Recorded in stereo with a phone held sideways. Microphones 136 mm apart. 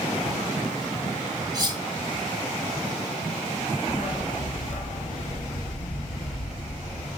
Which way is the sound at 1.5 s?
30° right (ahead or behind).